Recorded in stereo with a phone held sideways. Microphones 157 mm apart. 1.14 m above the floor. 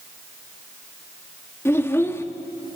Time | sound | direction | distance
1.6 | a child speaking | 15° left (ahead or behind) | 1.4 m